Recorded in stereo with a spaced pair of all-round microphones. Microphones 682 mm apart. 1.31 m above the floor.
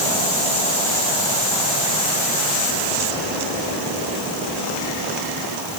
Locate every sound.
Only background noise.